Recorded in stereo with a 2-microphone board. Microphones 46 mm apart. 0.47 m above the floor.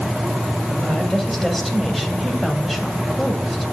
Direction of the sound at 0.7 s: Centre (ahead or behind).